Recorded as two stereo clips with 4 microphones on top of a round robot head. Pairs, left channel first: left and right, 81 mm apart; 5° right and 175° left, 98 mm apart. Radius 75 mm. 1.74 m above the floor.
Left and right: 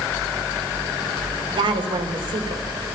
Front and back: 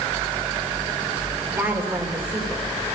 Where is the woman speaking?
110° right, 3.5 m.